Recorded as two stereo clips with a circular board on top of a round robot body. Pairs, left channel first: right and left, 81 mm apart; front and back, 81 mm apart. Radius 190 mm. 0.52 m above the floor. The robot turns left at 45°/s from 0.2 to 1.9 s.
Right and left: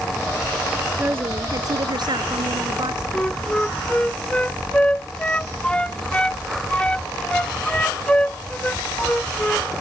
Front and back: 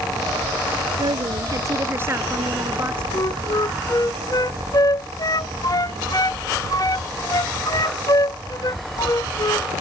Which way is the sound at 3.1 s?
15° right.